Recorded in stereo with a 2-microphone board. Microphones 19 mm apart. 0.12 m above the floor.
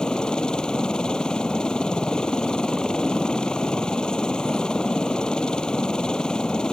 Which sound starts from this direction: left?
A helicopter, at 0.0 s.